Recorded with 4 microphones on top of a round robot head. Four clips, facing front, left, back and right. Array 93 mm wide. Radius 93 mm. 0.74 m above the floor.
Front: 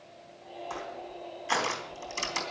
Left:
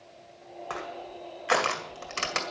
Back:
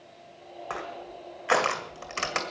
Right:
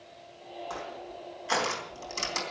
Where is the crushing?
145° left, 1.9 m.